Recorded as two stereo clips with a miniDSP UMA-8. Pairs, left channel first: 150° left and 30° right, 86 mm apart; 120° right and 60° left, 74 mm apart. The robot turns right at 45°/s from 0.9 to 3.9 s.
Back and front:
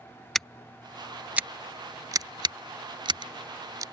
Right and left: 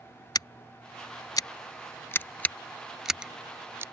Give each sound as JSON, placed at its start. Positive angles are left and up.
{"t": 0.3, "sound": "scissors", "azimuth_deg": -125}